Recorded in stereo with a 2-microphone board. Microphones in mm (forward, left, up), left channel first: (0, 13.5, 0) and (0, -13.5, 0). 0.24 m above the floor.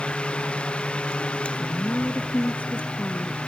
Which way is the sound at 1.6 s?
65° left (ahead or behind).